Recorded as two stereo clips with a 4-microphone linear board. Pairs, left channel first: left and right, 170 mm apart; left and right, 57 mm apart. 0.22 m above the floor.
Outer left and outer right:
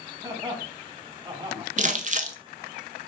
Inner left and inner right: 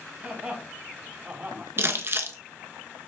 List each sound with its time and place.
0.2 s laughter: 25° right (ahead or behind), 1.5 m; by 1.7 s 30° right (ahead or behind), 1.8 m
1.8 s crumpling: 50° right (ahead or behind), 0.6 m